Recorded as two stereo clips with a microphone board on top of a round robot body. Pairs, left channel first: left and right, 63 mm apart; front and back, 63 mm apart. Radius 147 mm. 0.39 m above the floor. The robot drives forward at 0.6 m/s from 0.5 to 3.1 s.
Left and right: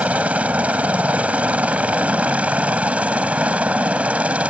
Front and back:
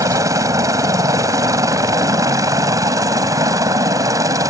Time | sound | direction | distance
0.0 | a helicopter | 160° right | ?